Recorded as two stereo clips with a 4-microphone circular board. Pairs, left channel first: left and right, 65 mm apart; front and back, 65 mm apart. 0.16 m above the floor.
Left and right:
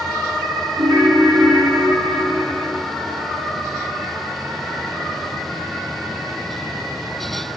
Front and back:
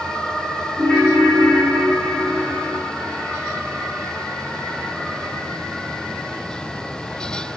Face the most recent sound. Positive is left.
turn(degrees=-100)